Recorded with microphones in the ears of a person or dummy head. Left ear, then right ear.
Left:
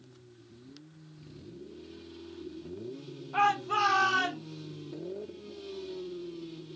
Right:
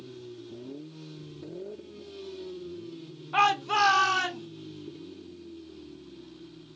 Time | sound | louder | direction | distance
3.3 | a shout | right 3 dB | 50° right (ahead or behind) | 0.6 m